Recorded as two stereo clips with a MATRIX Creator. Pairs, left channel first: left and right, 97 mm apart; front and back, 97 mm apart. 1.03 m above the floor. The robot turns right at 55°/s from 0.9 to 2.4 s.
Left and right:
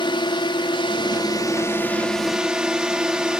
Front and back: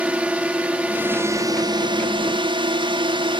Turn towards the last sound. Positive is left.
turn(degrees=-170)